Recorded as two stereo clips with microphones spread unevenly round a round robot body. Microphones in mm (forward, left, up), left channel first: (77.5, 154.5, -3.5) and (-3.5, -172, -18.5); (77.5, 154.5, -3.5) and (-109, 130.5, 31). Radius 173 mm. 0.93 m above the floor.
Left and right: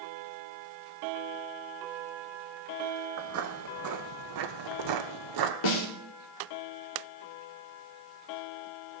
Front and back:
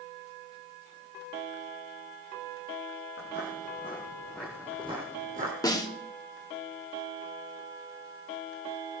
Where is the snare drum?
75° left, 2.5 m.